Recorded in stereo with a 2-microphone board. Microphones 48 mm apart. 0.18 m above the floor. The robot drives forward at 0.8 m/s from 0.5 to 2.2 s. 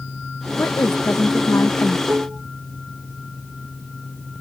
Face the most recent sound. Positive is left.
turn(degrees=-40)  # may be behind; listen again after turning